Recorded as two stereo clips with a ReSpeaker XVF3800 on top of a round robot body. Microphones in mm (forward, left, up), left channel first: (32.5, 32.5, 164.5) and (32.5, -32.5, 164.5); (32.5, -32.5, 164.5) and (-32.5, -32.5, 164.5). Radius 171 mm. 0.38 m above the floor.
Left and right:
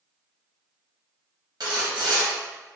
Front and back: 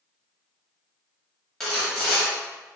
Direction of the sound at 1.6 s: 85° right.